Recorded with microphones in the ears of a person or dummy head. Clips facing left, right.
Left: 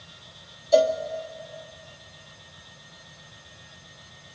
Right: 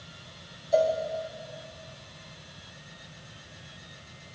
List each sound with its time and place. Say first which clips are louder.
0.7 s a cowbell: left 4 dB; 60° left (ahead or behind), 1.9 m